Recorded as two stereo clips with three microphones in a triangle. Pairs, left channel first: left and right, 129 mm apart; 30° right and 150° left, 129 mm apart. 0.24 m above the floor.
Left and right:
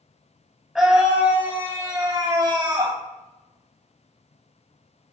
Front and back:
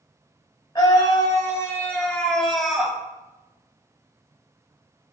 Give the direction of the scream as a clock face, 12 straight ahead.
12 o'clock.